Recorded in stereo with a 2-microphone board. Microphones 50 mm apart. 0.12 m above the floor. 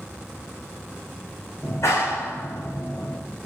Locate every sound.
1.6 s a clap: 75° left (ahead or behind), 7 m